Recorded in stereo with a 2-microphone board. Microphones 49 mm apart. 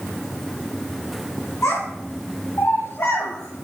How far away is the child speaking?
About 2.5 m.